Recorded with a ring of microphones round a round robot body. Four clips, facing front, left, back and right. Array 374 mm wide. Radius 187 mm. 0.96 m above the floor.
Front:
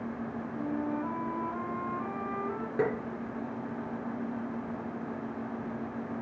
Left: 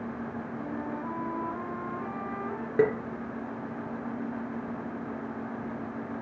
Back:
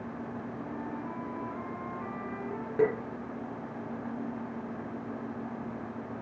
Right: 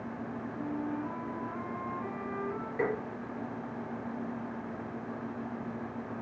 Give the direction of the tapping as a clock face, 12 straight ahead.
9 o'clock.